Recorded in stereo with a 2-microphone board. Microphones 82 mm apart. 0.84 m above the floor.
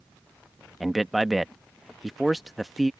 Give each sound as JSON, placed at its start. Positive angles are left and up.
{"t": 0.8, "sound": "a man speaking", "side_deg": 0}